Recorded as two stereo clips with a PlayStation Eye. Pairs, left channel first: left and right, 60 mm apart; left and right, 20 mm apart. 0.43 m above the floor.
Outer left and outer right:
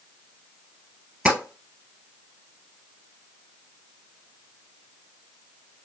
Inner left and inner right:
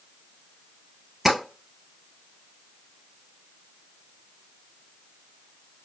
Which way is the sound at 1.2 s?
20° right (ahead or behind).